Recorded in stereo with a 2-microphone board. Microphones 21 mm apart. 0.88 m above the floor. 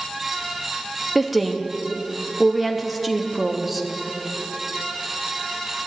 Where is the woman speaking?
5° right (ahead or behind), 0.9 m.